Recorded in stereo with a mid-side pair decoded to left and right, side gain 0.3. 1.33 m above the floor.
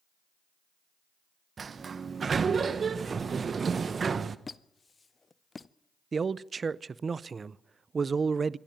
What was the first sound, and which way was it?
A sliding door, 55° right.